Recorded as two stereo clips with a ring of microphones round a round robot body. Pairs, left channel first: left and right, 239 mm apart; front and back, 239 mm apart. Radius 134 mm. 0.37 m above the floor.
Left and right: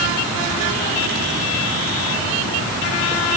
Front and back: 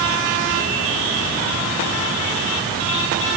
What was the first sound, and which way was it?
Only background noise.